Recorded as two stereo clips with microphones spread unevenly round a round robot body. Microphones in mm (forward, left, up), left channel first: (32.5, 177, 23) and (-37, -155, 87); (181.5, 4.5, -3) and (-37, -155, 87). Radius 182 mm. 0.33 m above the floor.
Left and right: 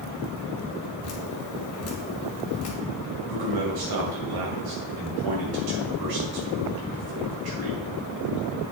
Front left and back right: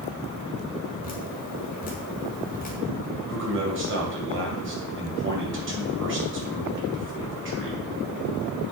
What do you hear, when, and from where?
1.0 s dripping: 65° left, 1.9 m
3.3 s a man speaking: 90° right, 3 m